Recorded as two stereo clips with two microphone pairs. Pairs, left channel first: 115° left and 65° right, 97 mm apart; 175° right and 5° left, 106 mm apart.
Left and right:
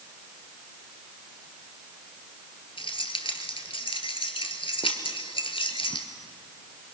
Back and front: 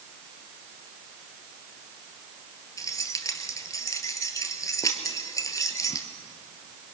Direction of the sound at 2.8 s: 130° left.